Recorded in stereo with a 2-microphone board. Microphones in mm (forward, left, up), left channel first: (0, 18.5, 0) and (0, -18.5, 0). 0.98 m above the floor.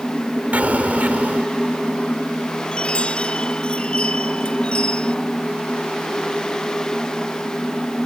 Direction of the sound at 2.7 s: 30° left (ahead or behind).